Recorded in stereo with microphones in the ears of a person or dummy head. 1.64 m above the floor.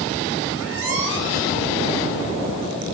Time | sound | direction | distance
0.5 | a squeak | 65° right (ahead or behind) | 6 m